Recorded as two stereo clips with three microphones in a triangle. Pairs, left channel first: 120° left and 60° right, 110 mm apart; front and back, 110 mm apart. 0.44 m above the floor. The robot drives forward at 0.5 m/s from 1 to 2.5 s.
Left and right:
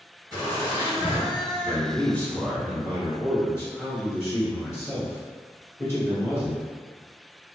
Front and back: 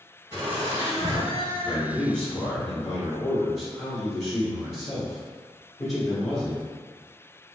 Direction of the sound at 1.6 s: 45° left.